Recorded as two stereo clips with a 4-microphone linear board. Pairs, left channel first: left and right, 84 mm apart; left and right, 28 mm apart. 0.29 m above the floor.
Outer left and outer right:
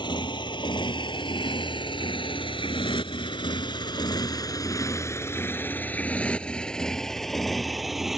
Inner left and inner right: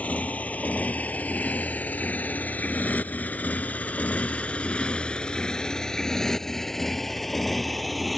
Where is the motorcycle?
60° left (ahead or behind); by 8.2 s 5° right (ahead or behind).